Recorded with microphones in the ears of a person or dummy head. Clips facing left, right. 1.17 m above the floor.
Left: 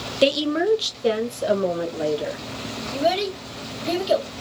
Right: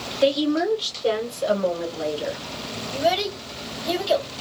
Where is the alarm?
No alarm in this recording.